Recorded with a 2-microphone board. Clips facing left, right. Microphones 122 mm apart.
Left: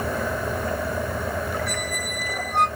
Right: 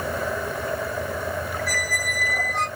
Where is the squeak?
60° left (ahead or behind), 1.7 m.